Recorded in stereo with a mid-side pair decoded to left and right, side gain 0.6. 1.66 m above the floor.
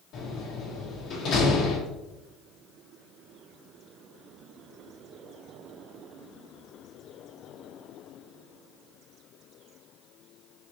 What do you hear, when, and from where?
0.1 s a door slam: 50° left, 1.8 m